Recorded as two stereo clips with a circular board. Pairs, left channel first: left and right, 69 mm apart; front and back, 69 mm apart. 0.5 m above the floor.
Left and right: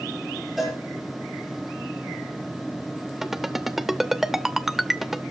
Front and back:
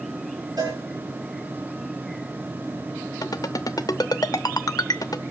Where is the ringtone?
5° right, 0.8 m.